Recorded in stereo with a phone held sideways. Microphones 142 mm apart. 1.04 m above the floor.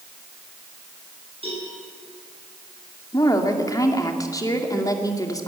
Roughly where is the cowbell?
Right.